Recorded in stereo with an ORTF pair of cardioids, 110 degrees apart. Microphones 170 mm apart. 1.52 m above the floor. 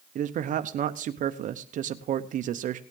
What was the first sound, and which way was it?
A man speaking, 55° right.